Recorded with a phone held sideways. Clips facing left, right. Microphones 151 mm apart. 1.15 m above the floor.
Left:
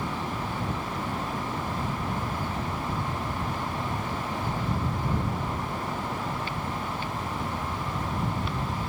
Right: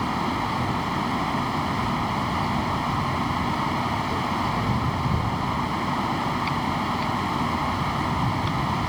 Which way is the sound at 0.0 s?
75° right (ahead or behind).